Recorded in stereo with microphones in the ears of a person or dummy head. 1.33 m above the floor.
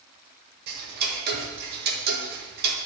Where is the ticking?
60° right (ahead or behind), 1.8 m.